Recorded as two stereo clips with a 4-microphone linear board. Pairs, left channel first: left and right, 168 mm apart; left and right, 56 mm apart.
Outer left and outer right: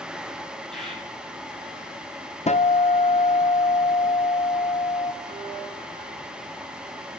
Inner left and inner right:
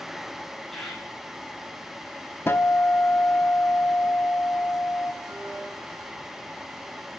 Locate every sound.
0.7 s a bird: centre (ahead or behind), 4 m
2.5 s a guitar: 40° left (ahead or behind), 0.5 m
5.2 s a violin: 75° right (ahead or behind), 4 m